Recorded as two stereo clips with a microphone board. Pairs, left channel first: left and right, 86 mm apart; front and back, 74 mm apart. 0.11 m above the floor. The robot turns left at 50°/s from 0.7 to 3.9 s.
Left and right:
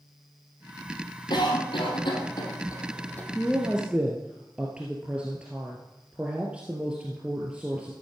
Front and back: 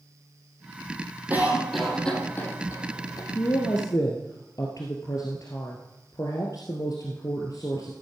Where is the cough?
115° left, 3.5 m; by 3.2 s 20° left, 3.5 m.